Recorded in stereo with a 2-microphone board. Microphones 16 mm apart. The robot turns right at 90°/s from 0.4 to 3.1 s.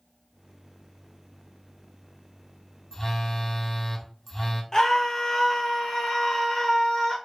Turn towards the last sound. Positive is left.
turn(degrees=50)  # may be behind; listen again after turning